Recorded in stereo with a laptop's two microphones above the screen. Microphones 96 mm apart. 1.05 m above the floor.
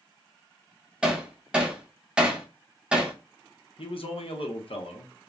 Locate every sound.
1.0 s hammering: 10° right (ahead or behind), 0.7 m
3.8 s a man speaking: 70° left (ahead or behind), 0.8 m